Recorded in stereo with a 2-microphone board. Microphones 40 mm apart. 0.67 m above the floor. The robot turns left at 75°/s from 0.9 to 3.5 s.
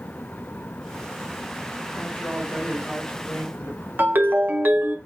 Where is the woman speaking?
115° right, 1.9 m; by 3.9 s 130° left, 1.9 m.